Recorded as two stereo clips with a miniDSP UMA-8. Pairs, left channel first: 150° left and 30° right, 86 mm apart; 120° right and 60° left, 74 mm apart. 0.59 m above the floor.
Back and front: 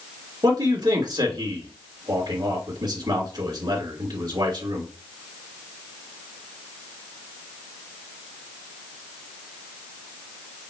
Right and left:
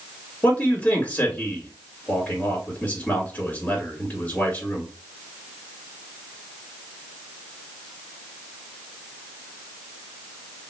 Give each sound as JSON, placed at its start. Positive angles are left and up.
{"t": 0.4, "sound": "a man speaking", "azimuth_deg": -50, "distance_m": 2.5}